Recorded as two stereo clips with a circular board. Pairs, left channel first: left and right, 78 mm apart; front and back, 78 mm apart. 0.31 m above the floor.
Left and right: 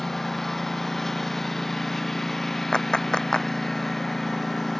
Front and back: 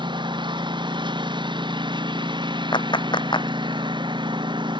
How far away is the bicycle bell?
No bicycle bell in this recording.